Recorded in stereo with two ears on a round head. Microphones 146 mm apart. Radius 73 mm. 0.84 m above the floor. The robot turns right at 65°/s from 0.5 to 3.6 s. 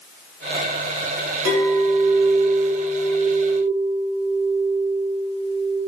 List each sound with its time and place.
1.4 s a clink: 120° right, 1.7 m; by 5.8 s 20° left, 1.7 m